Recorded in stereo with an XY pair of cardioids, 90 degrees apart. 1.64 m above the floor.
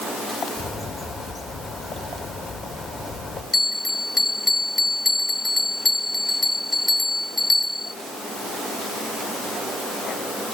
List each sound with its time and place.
0.6 s a bird: 60° left, 5 m
3.5 s a bell: 50° left, 2.0 m